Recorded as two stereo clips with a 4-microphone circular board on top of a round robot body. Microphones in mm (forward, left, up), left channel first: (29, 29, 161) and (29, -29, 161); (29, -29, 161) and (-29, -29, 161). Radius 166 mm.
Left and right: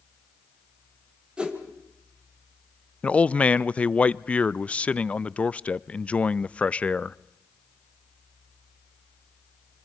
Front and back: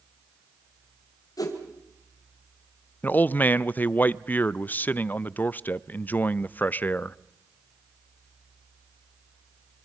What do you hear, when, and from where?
1.4 s a whoosh: 15° right, 2 m
3.0 s a man speaking: 35° left, 0.6 m